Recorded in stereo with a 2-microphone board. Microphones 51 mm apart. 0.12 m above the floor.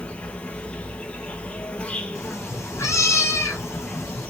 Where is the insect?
20° left (ahead or behind), 1.1 m.